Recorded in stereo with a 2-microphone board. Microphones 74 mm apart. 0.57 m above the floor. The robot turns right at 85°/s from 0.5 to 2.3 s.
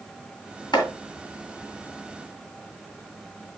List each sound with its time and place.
0.7 s chopping: 80° left, 3 m; by 0.9 s 85° left, 3 m